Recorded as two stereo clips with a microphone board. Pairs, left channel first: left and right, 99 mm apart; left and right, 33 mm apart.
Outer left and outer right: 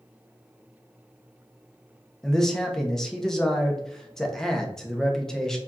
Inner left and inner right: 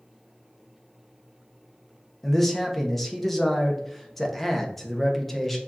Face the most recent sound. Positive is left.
turn(degrees=5)  # may be behind; listen again after turning